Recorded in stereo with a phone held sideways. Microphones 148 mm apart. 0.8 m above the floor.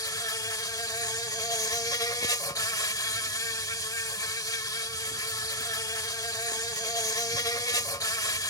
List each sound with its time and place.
0.0 s an insect: 20° left (ahead or behind)